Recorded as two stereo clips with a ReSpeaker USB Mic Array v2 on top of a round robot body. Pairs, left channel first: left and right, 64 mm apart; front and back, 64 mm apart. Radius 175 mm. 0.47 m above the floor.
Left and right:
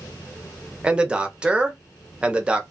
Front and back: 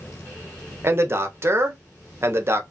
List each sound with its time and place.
0.8 s a man speaking: 160° right, 1.0 m